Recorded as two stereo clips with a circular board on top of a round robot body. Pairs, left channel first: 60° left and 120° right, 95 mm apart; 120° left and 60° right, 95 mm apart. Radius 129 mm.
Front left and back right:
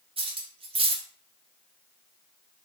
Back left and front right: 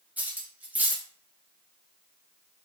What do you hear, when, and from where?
0.2 s cutlery clinking: 135° right, 0.7 m